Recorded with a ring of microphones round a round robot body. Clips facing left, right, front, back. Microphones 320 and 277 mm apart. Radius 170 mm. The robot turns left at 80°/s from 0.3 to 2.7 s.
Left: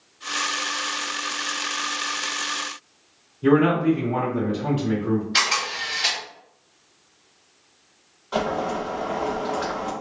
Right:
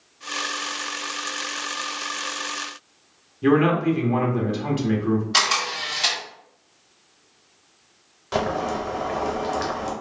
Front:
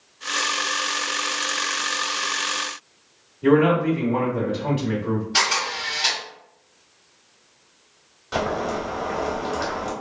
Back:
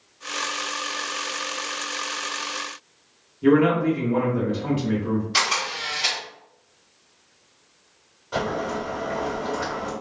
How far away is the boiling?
About 0.7 m.